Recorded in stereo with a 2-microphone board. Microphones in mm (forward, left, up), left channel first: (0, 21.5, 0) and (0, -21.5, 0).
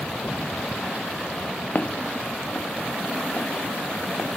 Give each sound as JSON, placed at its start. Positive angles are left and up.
{"t": 1.8, "sound": "footsteps", "side_deg": 50}